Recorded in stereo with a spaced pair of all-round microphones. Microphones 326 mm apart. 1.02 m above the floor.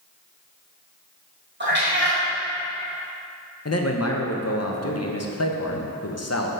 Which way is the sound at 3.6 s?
50° left (ahead or behind).